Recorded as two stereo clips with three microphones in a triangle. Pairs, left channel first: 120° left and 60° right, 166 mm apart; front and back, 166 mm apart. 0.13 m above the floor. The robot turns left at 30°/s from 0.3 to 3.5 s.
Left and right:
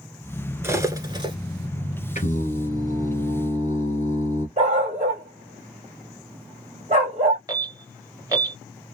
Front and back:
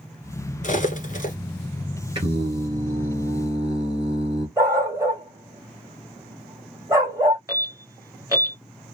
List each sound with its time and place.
0.6 s cutlery clinking: 10° left, 0.9 m; by 1.4 s 10° right, 0.9 m
2.1 s singing: 130° left, 1.6 m; by 4.5 s 90° left, 1.6 m
4.6 s a dog barking: 110° right, 1.5 m
7.5 s an alarm: 115° right, 2.5 m